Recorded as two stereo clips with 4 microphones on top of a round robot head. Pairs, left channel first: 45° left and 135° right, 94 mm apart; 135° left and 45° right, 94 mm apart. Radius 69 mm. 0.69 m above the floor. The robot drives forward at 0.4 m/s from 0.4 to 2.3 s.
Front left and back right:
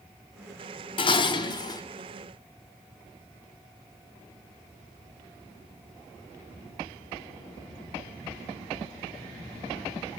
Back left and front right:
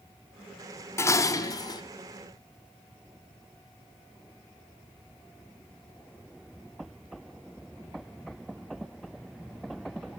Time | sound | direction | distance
1.0 | dishes clattering | 75° left | 1.1 m